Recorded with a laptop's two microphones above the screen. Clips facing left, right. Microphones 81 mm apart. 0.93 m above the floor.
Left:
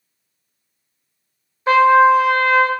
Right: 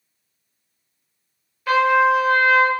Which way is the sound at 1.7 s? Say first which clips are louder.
Left 5 dB; 30° left (ahead or behind).